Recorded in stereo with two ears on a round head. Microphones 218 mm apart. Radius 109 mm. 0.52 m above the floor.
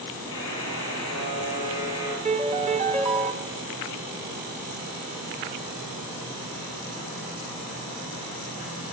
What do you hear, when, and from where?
0.3 s a buzzer: 20° left (ahead or behind), 8.5 m
2.2 s a piano: 30° right (ahead or behind), 1.9 m